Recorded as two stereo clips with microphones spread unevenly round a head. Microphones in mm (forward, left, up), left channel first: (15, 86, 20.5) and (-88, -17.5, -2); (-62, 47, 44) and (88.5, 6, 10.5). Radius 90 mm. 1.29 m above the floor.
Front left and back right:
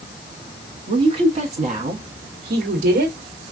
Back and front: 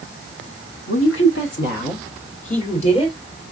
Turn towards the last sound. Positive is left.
turn(degrees=-135)